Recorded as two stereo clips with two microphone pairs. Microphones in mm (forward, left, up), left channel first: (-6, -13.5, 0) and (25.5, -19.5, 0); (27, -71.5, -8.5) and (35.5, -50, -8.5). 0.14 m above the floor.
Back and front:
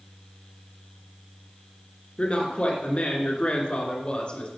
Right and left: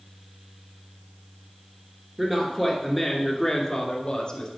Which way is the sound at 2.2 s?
140° left.